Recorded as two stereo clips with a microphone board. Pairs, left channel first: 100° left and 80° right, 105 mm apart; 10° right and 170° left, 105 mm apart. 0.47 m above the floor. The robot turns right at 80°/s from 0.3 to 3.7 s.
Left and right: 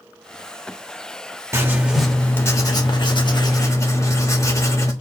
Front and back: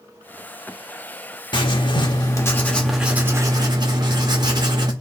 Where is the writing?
30° right, 1.1 m; by 4.9 s 145° left, 1.1 m.